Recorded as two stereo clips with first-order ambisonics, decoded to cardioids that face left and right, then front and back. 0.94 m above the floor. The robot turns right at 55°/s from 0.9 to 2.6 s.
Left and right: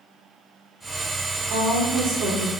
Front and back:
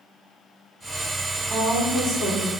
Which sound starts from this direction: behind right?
A woman speaking, at 1.5 s.